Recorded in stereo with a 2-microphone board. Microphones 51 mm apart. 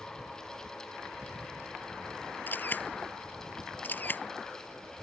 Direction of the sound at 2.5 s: 40° left (ahead or behind).